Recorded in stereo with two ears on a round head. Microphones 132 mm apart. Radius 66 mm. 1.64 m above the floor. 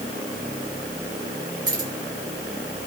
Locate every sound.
1.7 s keys jangling: 25° right (ahead or behind), 6 m